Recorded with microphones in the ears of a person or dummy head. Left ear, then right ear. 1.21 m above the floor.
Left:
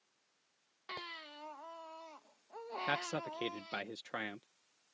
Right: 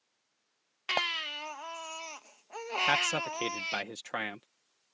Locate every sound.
0.9 s a baby crying: 70° right (ahead or behind)
2.9 s a man speaking: 30° right (ahead or behind)